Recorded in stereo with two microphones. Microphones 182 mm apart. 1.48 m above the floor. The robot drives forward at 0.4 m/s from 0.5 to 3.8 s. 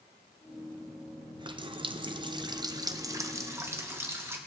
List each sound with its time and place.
1.4 s a running tap: 25° right (ahead or behind), 0.5 m; by 4.4 s 15° right (ahead or behind), 0.9 m